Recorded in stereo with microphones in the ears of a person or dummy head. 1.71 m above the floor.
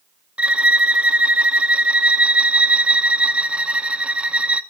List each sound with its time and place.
0.4 s a violin: 5° right (ahead or behind), 0.6 m